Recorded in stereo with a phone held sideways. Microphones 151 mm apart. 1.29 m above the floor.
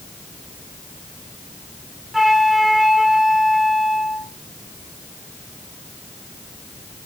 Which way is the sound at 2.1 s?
Centre (ahead or behind).